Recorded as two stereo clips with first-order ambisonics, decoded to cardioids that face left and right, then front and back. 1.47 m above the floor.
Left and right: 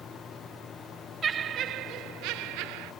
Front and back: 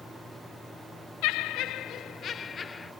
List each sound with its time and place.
1.2 s laughter: 25° right; by 2.9 s 75° right